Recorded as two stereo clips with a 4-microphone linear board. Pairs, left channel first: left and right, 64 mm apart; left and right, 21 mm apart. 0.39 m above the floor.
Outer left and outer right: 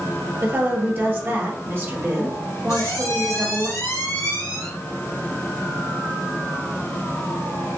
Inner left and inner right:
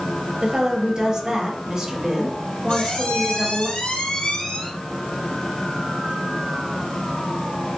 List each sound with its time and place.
0.4 s a woman speaking: 40° right (ahead or behind), 1.8 m
2.7 s a squeak: 70° left (ahead or behind), 2 m